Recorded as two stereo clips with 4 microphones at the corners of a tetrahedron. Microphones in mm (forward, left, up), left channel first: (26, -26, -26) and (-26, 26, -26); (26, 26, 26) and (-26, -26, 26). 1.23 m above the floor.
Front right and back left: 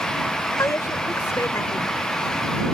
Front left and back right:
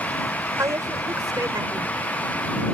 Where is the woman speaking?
90° right.